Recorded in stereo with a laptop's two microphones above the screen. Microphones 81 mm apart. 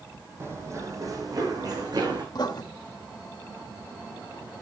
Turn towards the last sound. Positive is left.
turn(degrees=60)  # may be behind; listen again after turning